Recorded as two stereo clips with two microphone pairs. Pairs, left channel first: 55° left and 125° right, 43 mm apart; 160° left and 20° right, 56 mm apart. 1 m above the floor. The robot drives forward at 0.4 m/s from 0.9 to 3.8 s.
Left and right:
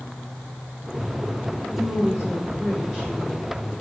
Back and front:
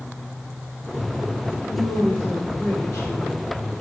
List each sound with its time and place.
1.7 s a woman speaking: 145° left, 2 m; by 3.8 s 155° left, 3 m